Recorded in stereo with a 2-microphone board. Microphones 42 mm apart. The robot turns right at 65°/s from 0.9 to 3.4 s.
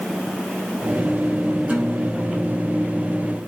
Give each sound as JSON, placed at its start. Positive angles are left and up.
{"t": 1.7, "sound": "a guitar", "azimuth_deg": -140, "distance_m": 1.3}